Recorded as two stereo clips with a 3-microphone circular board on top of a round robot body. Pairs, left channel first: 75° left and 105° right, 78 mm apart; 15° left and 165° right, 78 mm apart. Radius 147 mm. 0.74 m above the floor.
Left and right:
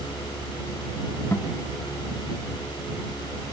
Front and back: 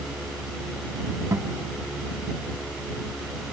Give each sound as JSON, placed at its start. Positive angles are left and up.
{"t": 1.3, "sound": "a guitar", "azimuth_deg": 140}